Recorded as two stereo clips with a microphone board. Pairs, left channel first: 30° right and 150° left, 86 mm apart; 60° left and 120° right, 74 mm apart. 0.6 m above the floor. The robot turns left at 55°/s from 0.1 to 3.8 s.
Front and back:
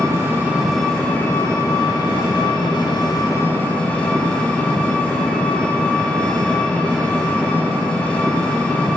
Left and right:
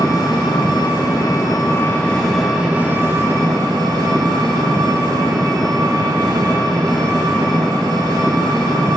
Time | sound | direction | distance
0.0 | an engine running | 95° left | 2 m